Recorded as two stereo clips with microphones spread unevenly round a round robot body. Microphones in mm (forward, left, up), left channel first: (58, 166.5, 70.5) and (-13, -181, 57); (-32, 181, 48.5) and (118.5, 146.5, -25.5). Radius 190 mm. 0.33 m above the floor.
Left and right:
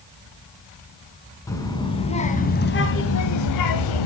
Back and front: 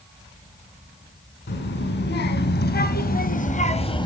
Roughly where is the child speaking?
Behind.